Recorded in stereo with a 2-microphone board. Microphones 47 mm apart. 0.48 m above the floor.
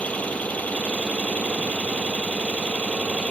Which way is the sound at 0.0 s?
30° left (ahead or behind).